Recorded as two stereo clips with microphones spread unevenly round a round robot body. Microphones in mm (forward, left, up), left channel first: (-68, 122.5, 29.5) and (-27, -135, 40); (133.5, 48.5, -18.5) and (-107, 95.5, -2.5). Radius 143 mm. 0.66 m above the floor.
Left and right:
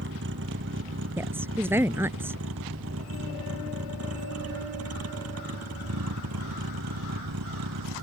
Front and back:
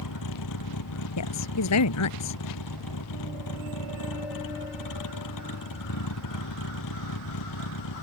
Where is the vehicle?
25° right; by 8.0 s 40° right.